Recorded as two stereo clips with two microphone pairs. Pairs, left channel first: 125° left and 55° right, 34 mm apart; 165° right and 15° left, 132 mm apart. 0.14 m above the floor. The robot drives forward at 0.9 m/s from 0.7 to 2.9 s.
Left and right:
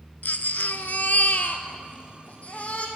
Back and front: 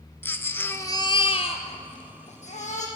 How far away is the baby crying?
About 0.6 m.